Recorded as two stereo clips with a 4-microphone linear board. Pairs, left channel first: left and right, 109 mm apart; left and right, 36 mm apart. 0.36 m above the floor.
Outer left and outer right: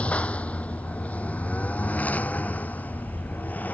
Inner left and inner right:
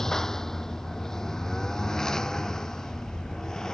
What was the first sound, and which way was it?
A lawn mower, 10° left (ahead or behind).